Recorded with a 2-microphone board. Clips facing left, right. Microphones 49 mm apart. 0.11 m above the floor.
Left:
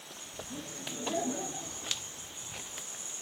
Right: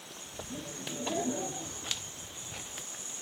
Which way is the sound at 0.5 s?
5° right (ahead or behind).